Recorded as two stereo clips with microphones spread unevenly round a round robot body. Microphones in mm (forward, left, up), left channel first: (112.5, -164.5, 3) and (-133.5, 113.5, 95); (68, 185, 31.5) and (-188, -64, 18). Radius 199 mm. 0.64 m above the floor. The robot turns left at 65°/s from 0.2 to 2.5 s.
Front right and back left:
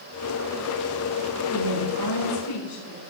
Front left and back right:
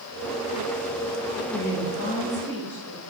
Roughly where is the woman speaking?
Ahead.